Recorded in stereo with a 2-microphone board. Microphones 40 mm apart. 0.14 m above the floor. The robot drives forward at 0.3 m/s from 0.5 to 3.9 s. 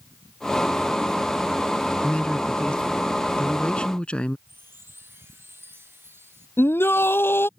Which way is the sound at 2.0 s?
30° left (ahead or behind).